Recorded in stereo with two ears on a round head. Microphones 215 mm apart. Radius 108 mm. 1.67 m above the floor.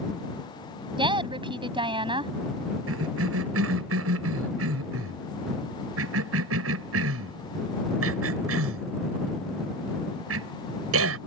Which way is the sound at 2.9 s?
60° right (ahead or behind).